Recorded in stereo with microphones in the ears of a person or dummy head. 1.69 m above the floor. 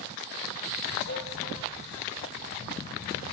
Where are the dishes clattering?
60° left (ahead or behind), 3.5 m.